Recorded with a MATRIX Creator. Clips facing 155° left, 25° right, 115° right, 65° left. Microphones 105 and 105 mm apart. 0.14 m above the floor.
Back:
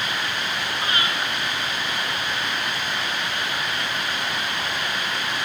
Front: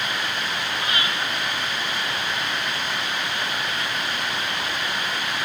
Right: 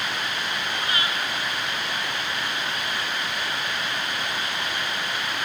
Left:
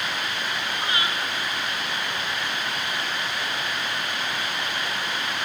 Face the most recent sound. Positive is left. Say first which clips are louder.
# back 2 dB, left 1 dB
turn(degrees=120)